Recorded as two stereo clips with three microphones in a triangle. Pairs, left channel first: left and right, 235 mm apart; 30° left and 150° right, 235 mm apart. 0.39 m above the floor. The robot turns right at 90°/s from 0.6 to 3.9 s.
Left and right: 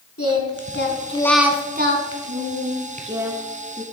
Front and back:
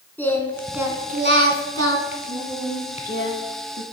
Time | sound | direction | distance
0.2 | singing | 110° left | 1.2 m